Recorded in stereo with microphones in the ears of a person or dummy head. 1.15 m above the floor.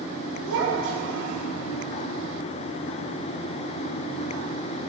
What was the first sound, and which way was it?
A child speaking, 75° right (ahead or behind).